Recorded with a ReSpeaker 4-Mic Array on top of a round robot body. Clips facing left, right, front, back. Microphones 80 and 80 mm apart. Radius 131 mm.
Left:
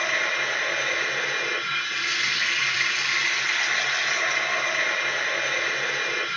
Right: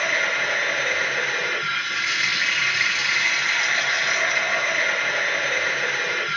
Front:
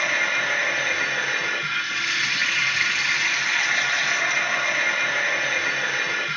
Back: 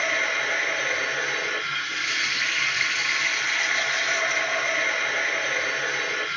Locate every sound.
0.0 s running water: 45° right, 3 m